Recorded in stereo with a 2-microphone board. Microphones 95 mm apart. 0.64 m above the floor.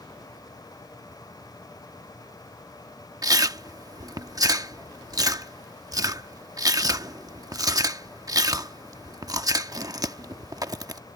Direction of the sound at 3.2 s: 40° right (ahead or behind).